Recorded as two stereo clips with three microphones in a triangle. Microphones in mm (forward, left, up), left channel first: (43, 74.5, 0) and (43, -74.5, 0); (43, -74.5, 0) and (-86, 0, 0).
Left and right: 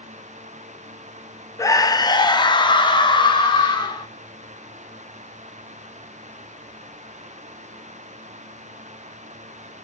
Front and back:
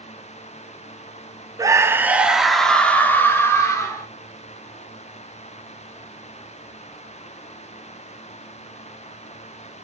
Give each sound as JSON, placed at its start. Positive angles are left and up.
{"t": 1.6, "sound": "a scream", "azimuth_deg": 125, "distance_m": 0.8}